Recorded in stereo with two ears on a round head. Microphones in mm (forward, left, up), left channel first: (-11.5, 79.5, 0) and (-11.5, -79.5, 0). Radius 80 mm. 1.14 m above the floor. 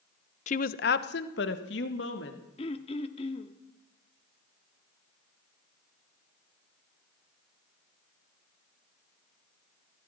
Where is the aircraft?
No aircraft in this recording.